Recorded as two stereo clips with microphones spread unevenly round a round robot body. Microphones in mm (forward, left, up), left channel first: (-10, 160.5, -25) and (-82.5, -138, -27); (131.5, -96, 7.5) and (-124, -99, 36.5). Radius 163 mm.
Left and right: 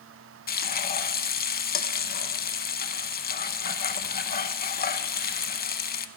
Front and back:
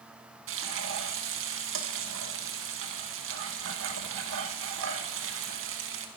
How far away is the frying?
About 0.7 m.